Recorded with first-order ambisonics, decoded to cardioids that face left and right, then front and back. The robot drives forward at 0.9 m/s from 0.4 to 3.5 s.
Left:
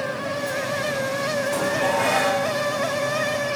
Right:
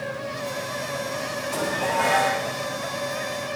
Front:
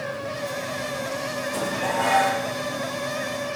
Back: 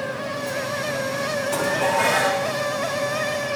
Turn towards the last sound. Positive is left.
turn(degrees=180)